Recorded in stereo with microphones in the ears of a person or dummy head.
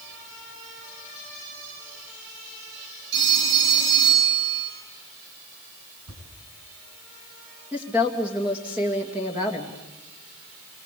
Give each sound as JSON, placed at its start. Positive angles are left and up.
{"t": 3.1, "sound": "a phone ringing", "side_deg": -60, "distance_m": 8.5}
{"t": 6.1, "sound": "a thud", "side_deg": -75, "distance_m": 6.5}
{"t": 7.7, "sound": "a woman speaking", "side_deg": -10, "distance_m": 2.5}